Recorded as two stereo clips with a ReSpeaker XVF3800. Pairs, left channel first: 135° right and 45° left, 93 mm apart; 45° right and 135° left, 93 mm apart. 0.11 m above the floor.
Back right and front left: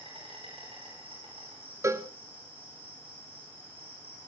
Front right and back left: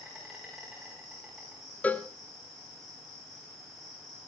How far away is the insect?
About 7.5 m.